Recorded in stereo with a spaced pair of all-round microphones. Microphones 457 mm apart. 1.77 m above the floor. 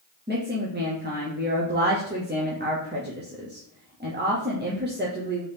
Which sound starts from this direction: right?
A woman speaking, at 0.3 s.